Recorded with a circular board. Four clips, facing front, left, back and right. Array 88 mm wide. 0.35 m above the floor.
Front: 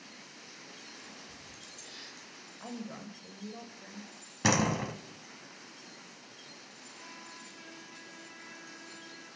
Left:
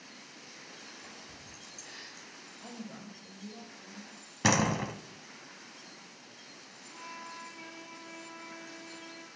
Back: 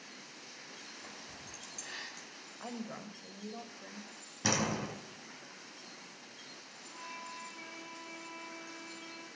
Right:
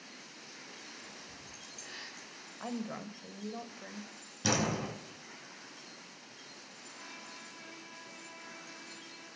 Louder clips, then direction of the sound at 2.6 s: Right 6 dB, front 1 dB; 105° right.